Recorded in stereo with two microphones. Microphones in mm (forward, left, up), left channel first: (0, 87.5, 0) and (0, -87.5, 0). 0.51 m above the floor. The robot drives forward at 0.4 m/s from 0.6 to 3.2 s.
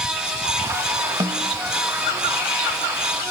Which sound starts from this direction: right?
A snare drum, at 1.2 s.